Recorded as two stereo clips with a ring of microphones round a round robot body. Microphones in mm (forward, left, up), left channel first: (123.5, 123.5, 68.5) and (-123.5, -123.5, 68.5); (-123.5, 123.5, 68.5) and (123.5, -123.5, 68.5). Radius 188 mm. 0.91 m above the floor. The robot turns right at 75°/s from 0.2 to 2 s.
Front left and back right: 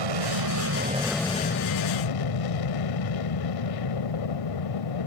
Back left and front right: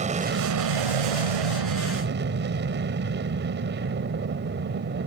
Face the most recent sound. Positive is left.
turn(degrees=20)